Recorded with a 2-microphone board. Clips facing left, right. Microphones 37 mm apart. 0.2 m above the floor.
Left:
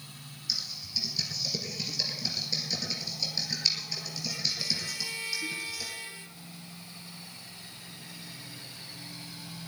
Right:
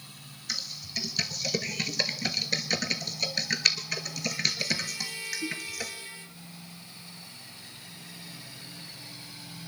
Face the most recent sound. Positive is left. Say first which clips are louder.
# even
turn(degrees=-60)  # may be behind; listen again after turning